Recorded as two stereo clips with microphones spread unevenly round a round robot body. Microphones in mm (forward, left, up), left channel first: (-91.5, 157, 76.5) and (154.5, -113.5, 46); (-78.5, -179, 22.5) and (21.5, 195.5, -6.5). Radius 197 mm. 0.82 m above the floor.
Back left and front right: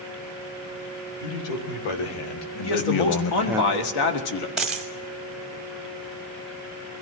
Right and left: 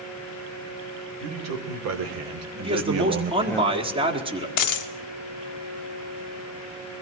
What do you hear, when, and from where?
1.2 s a man speaking: 125° left, 3.5 m; by 3.6 s 40° right, 0.6 m
2.6 s a man speaking: 150° left, 1.9 m
4.6 s a dropped coin: 140° right, 0.9 m